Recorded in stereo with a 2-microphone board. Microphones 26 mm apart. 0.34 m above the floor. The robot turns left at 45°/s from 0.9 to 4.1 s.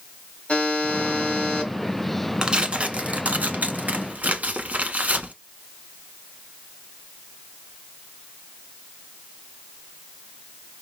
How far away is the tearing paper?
About 0.8 m.